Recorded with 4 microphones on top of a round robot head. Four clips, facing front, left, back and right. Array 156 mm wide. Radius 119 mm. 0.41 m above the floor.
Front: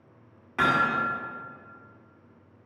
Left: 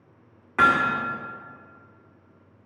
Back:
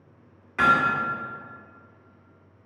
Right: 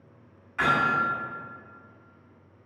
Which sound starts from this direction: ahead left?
Hammering, at 0.6 s.